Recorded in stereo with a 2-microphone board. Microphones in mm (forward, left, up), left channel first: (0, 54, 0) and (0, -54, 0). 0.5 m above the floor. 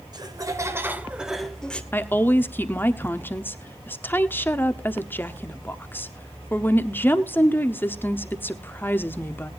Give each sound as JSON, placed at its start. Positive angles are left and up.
{"t": 0.1, "sound": "laughter", "side_deg": -40, "distance_m": 1.5}
{"t": 1.9, "sound": "a woman speaking", "side_deg": 20, "distance_m": 0.8}